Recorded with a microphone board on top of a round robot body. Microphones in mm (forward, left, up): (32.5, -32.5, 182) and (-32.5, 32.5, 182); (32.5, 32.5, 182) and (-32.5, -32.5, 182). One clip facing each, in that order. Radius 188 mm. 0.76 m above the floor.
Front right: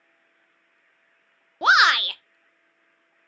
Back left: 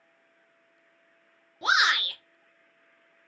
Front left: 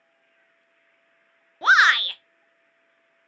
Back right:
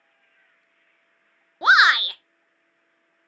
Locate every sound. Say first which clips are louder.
1.6 s a shout: front right 7 dB, back right 1 dB; 60° right, 0.7 m